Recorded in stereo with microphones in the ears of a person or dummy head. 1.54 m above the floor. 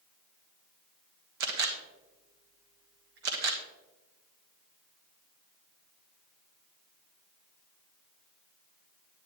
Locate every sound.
1.4 s a camera shutter: 70° right (ahead or behind), 1.4 m